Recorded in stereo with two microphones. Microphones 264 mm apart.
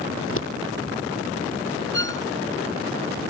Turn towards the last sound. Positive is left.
turn(degrees=-45)  # may be behind; listen again after turning